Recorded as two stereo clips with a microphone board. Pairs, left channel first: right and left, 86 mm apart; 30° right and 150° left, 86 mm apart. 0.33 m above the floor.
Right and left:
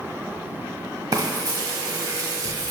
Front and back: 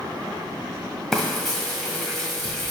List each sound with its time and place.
1.1 s frying: 55° left, 1.4 m